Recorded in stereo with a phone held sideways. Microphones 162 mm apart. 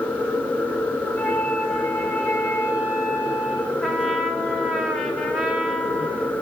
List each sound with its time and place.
0.0 s a machine running: 10° left (ahead or behind), 0.9 m
1.1 s a flute: 15° left (ahead or behind), 4.5 m
3.8 s a trumpet: centre (ahead or behind), 3.5 m